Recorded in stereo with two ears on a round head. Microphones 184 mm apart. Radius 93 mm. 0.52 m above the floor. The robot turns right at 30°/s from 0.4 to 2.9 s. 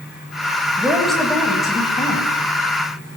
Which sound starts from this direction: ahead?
A woman speaking, at 0.8 s.